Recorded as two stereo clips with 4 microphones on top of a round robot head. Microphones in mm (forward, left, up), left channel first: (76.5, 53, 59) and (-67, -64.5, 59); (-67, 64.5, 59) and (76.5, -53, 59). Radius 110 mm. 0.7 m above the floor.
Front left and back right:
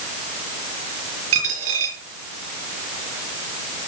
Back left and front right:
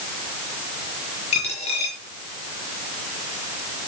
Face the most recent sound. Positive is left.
turn(degrees=-160)